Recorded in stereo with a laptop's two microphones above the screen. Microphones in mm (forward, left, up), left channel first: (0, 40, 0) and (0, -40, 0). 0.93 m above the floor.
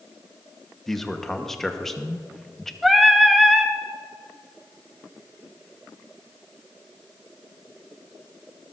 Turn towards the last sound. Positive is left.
turn(degrees=0)  # may be behind; listen again after turning